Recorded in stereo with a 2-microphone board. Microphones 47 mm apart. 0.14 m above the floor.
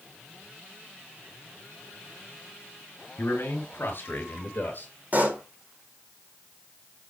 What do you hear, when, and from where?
3.2 s a man speaking: 55° left (ahead or behind), 3 m; by 4.9 s 35° left (ahead or behind), 2.5 m
5.1 s a pop: 35° right (ahead or behind), 1.5 m